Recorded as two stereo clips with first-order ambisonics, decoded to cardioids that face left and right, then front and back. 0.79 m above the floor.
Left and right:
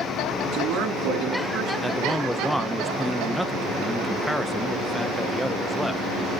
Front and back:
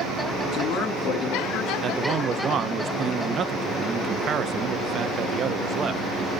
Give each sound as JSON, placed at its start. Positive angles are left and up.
{"t": 0.5, "sound": "a man speaking", "azimuth_deg": -45, "distance_m": 8.5}
{"t": 1.8, "sound": "a man speaking", "azimuth_deg": -175, "distance_m": 0.7}